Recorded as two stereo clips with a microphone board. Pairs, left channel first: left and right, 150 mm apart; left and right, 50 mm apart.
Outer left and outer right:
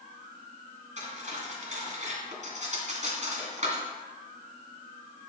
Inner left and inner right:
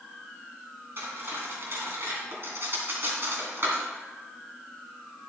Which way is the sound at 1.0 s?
50° right (ahead or behind).